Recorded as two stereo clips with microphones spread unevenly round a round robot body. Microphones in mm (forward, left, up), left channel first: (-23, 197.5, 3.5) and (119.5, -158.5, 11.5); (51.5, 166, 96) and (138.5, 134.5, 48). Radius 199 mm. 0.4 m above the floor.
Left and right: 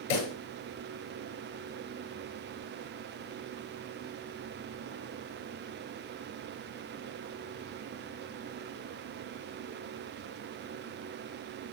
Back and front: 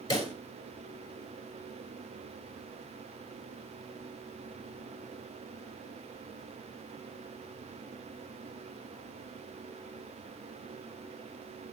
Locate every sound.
0.1 s a pop: 115° left, 8 m